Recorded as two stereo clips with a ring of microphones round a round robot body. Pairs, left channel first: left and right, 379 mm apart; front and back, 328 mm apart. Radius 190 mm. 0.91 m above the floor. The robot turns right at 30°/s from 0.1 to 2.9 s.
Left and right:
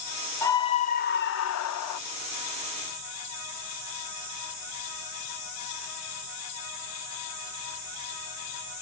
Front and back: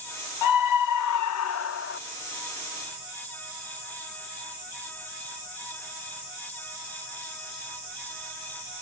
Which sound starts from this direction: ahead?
A scream, at 0.4 s.